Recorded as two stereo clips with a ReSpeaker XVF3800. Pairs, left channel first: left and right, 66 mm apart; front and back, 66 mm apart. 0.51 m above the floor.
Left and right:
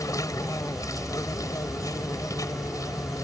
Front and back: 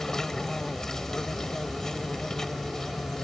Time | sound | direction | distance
0.0 | an insect | 80° left | ?